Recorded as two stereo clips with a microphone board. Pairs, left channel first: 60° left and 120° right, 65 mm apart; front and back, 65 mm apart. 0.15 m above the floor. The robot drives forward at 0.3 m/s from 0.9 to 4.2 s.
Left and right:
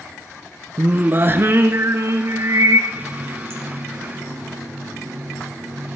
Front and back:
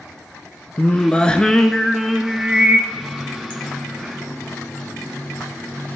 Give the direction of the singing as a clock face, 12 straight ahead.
2 o'clock.